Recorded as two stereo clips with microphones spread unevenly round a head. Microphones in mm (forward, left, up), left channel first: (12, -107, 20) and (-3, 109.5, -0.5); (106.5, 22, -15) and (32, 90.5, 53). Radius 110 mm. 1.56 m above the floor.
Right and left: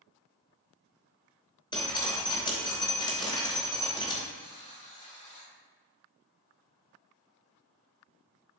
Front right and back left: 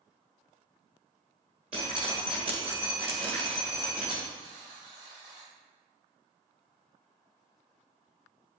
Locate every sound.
1.7 s dripping: 155° right, 3 m
4.3 s a buzzer: 145° right, 5 m